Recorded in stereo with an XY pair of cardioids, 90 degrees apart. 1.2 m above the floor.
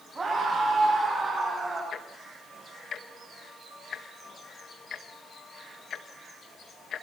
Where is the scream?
30° right, 8.5 m.